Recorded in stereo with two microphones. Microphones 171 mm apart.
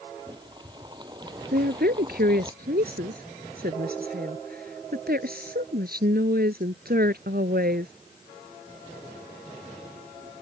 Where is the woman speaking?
65° right (ahead or behind).